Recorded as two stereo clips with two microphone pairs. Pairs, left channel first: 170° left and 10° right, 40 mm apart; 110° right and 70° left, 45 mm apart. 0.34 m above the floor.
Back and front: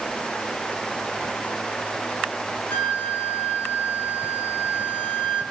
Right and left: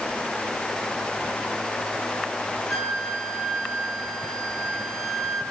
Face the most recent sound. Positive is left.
turn(degrees=160)